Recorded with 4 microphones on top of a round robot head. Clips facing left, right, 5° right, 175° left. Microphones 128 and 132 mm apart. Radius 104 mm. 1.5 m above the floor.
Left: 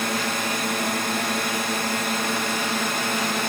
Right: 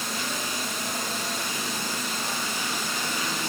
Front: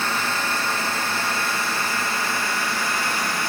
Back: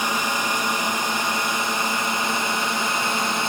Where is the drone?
100° left; by 3.5 s 105° left.